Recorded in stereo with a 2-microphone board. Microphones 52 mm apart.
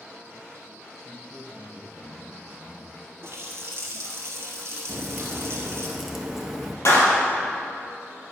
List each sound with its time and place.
1.0 s a man speaking: 55° left (ahead or behind), 3 m
3.2 s a running tap: 60° right (ahead or behind), 1.6 m
4.9 s a crack: centre (ahead or behind), 1.1 m
6.8 s a clap: 60° left (ahead or behind), 2.5 m